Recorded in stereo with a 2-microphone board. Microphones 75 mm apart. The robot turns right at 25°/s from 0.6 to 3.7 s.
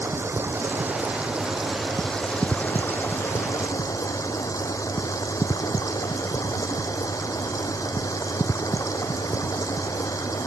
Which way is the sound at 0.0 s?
30° right.